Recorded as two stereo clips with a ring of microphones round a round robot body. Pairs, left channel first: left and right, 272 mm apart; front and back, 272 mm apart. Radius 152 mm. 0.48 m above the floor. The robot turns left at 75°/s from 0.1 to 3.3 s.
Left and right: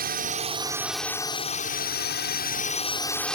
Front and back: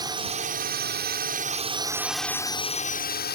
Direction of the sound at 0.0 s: 115° right.